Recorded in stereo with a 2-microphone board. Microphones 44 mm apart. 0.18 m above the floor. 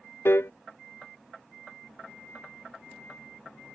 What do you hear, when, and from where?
0.2 s a piano: 75° left (ahead or behind)